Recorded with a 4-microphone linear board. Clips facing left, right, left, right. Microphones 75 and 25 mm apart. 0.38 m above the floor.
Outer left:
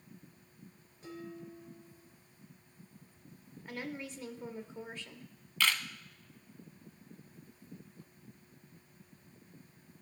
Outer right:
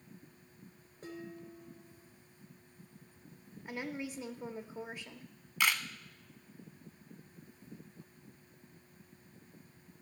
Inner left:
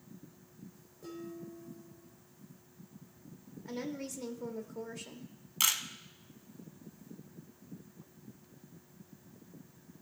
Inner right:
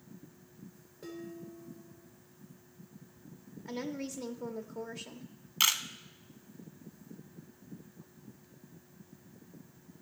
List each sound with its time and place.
1.0 s dishes clattering: 45° right (ahead or behind), 3.5 m
3.6 s a woman speaking: 10° right (ahead or behind), 0.9 m
5.6 s a camera shutter: 15° right (ahead or behind), 0.7 m